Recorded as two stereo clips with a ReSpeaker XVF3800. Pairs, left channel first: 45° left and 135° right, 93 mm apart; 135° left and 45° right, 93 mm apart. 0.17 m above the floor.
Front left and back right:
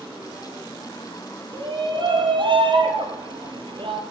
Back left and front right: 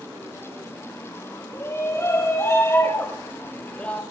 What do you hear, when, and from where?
1.5 s a shout: 170° right, 5.5 m; by 4.0 s 150° right, 4 m